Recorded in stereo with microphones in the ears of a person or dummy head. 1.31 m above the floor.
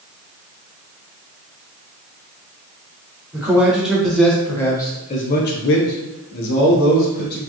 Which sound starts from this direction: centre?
A man speaking, at 3.3 s.